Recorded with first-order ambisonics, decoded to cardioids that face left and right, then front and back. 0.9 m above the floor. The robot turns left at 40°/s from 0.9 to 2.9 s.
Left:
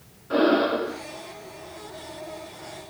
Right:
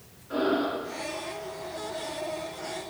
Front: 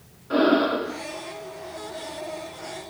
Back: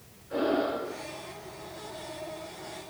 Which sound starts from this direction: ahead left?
Breathing, at 0.3 s.